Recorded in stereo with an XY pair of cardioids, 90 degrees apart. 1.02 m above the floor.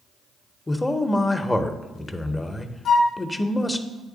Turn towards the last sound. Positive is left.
turn(degrees=60)